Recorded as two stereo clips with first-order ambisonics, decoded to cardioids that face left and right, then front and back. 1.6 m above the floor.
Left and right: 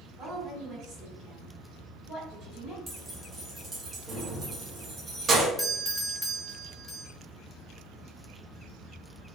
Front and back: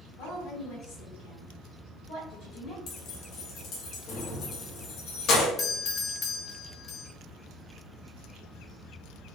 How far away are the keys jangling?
About 1.0 m.